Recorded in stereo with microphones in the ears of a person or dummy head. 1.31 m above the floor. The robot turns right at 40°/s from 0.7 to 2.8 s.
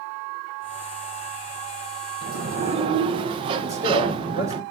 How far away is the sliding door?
About 1.0 m.